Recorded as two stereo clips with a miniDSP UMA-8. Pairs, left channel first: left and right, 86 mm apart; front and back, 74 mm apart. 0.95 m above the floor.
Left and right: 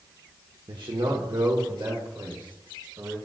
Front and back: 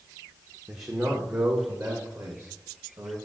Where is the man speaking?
110° right, 0.7 m; by 3.2 s 145° right, 1.8 m.